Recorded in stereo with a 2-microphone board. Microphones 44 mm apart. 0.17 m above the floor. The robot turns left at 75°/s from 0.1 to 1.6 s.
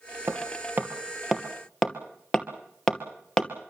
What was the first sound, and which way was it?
Hammering, 70° right (ahead or behind).